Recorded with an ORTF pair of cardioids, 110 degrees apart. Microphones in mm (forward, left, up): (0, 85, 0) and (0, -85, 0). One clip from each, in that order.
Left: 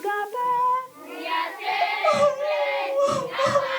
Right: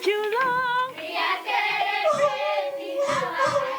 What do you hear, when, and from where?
1.8 s crying: 10° left, 1.7 m